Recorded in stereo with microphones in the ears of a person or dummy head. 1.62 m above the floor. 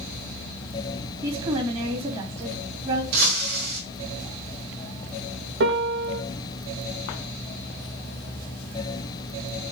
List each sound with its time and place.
1.2 s a woman speaking: 30° right (ahead or behind), 3 m
3.1 s breaking glass: 55° right (ahead or behind), 2.5 m
5.6 s a piano: 70° right (ahead or behind), 2.0 m